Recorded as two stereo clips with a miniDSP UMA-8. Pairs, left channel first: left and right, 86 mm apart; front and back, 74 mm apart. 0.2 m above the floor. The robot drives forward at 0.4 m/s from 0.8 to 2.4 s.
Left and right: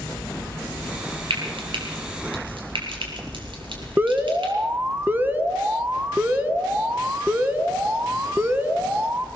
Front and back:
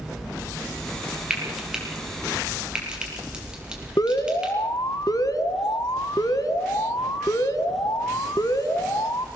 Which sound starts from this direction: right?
Frying, at 1.3 s.